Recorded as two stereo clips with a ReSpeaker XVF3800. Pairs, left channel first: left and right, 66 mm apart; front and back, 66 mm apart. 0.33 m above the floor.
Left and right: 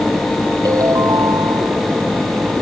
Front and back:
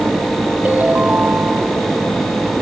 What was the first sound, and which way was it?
A ringtone, 115° right.